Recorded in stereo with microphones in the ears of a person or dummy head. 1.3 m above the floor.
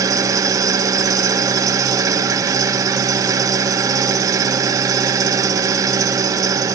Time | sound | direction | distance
0.0 | an engine running | 15° right (ahead or behind) | 0.9 m